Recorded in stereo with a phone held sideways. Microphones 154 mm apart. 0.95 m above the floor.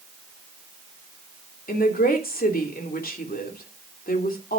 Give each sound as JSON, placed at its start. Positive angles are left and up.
{"t": 1.7, "sound": "a woman speaking", "side_deg": 80, "distance_m": 3.0}